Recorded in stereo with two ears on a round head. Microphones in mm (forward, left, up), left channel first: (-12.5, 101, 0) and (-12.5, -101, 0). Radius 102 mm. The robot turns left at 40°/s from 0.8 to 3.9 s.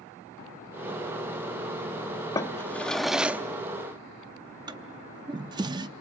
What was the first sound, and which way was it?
A drawer, 15° left (ahead or behind).